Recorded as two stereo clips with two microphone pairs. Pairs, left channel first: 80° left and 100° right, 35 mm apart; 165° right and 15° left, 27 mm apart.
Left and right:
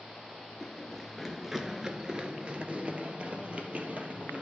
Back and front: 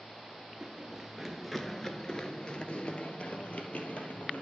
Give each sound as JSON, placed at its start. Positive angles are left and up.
{"t": 0.6, "sound": "running footsteps", "azimuth_deg": 25, "distance_m": 1.2}